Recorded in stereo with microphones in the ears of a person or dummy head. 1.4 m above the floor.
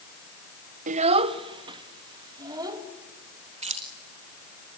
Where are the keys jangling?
30° right (ahead or behind), 1.3 m.